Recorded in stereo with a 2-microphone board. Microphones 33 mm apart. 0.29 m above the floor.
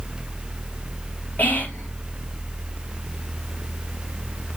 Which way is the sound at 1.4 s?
60° left (ahead or behind).